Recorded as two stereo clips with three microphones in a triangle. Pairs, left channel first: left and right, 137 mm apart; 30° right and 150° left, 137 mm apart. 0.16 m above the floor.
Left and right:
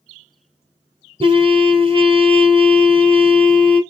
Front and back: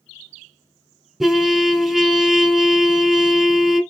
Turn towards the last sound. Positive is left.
turn(degrees=-120)